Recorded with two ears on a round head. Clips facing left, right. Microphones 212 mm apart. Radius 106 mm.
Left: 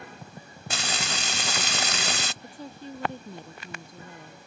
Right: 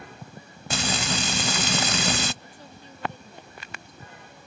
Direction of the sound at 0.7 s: 70° right (ahead or behind).